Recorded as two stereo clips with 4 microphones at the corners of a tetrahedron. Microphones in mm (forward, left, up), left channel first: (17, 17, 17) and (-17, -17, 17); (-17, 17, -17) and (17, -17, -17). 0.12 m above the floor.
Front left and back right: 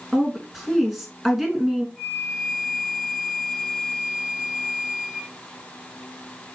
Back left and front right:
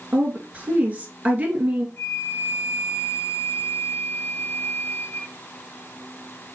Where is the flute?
125° left, 2.5 m.